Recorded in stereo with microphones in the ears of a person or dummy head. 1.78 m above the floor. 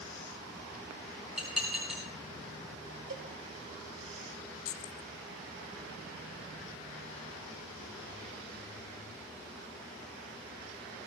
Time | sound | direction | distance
1.4 | dishes clattering | 5° right (ahead or behind) | 6 m
3.1 | a cowbell | 50° right (ahead or behind) | 1.6 m
4.7 | keys jangling | 45° left (ahead or behind) | 1.0 m